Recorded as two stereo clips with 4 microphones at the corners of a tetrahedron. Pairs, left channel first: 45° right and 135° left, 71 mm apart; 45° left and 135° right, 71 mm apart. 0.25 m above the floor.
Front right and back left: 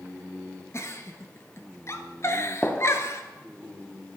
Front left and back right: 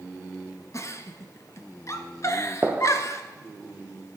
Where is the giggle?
5° left, 0.8 m.